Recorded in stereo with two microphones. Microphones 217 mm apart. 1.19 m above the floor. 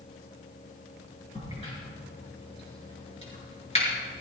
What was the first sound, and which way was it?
A crack, 30° left (ahead or behind).